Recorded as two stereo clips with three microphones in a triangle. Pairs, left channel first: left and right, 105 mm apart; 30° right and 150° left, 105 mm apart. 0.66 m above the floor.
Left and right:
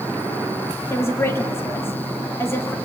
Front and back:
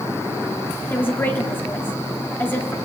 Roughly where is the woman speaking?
Ahead left.